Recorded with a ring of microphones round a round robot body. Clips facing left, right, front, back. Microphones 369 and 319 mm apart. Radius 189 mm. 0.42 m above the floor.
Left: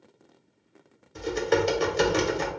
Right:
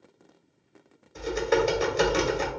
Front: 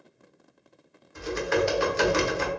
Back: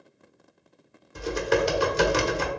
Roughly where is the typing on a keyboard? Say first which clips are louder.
Even, back 1 dB; behind left.